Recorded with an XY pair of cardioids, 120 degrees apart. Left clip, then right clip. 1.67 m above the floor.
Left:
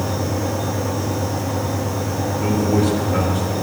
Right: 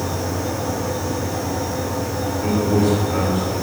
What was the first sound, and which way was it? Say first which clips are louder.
A fan: left 1 dB; 55° left.